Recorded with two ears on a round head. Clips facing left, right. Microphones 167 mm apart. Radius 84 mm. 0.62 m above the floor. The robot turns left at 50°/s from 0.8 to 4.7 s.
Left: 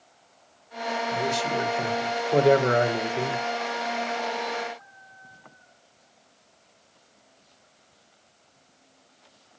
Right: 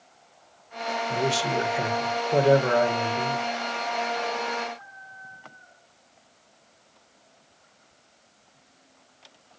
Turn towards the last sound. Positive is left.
turn(degrees=50)